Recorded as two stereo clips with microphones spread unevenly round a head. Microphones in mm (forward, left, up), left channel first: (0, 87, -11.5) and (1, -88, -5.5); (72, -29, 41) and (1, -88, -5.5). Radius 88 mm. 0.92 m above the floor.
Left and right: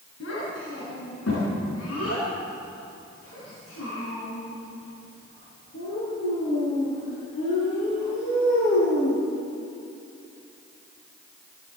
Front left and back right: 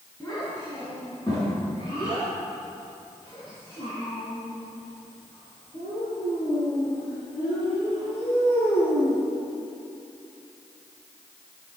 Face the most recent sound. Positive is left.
turn(degrees=60)